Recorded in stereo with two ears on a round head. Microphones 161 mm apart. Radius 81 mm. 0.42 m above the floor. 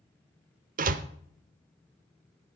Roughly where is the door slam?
Right.